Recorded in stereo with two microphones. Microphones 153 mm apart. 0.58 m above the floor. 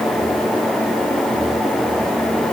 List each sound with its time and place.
Only background noise.